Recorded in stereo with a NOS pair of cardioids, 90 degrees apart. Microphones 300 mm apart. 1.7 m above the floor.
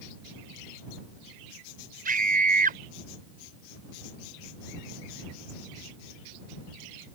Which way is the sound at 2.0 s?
30° right.